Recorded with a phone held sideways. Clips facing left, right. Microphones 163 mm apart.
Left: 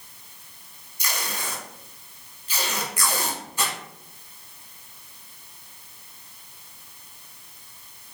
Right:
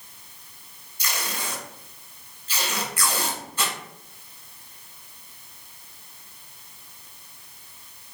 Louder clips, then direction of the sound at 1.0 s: Even; 15° left (ahead or behind).